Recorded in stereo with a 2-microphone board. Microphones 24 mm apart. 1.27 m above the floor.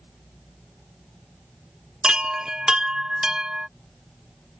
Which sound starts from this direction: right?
A chime, at 2.0 s.